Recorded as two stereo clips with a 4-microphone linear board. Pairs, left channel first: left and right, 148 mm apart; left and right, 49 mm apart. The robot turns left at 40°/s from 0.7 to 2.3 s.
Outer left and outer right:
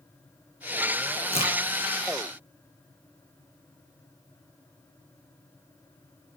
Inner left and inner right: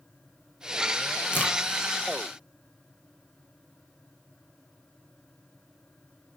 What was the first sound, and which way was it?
A crack, 50° left (ahead or behind).